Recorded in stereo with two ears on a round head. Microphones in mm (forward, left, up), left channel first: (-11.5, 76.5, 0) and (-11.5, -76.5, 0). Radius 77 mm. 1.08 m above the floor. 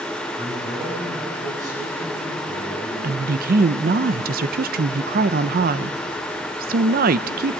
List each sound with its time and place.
0.4 s a man speaking: 20° right (ahead or behind), 8.5 m
3.0 s a woman speaking: 55° right (ahead or behind), 0.6 m